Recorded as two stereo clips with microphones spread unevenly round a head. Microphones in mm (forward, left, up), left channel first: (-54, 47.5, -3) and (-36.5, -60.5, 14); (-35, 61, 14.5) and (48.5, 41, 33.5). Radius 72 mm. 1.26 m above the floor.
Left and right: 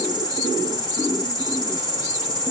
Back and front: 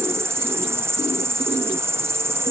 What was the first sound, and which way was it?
An insect, 50° left.